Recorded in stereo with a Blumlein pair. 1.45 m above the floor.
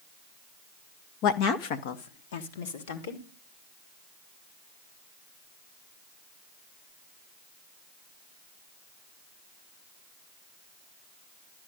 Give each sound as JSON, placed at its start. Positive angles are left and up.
{"t": 1.2, "sound": "a woman speaking", "azimuth_deg": 40, "distance_m": 0.8}